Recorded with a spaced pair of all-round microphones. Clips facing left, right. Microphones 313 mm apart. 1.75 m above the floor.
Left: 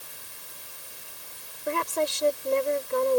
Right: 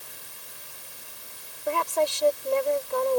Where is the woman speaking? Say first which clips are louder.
Right 2 dB; 20° left (ahead or behind).